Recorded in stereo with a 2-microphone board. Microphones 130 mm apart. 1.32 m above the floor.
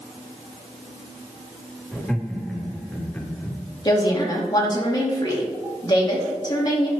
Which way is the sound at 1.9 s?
Centre (ahead or behind).